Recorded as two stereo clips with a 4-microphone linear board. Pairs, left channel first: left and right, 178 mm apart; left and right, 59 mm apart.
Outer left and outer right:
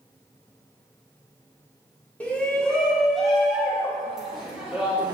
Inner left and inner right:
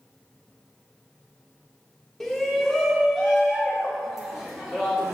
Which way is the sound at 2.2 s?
10° left (ahead or behind).